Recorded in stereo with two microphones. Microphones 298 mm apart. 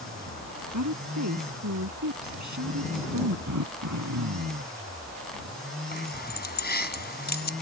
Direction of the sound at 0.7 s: 70° right (ahead or behind).